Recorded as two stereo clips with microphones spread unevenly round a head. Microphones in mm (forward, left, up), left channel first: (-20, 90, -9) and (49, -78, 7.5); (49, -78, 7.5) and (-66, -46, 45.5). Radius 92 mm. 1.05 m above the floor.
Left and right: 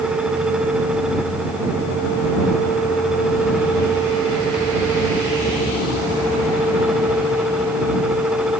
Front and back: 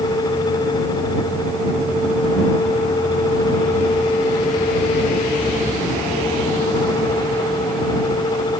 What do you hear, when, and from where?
Only background noise.